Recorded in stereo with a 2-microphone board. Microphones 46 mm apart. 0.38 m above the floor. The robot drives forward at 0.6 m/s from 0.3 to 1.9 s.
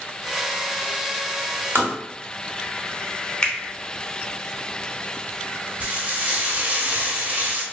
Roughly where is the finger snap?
Left.